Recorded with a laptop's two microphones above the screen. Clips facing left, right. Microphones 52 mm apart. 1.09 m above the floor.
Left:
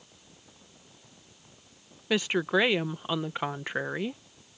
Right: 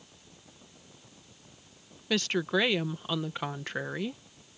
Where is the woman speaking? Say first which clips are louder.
Left 2 dB; 15° left (ahead or behind).